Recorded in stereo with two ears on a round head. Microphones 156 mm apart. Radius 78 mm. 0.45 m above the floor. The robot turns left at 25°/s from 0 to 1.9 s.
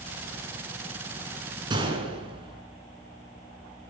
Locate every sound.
1.7 s a gunshot: 25° right (ahead or behind), 6 m; by 2.6 s 30° right (ahead or behind), 6 m